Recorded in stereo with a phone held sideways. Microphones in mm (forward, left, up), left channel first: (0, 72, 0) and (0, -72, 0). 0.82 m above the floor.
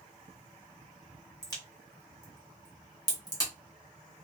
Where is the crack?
25° left (ahead or behind), 1.1 m.